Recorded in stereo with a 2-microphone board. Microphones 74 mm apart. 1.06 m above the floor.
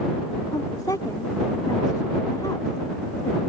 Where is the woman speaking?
60° left (ahead or behind).